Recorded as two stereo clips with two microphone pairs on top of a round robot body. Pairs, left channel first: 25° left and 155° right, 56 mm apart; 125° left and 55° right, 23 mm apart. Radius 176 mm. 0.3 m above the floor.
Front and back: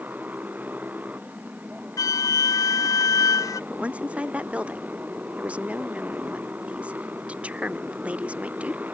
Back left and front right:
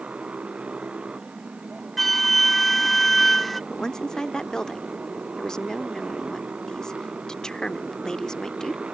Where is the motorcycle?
95° right.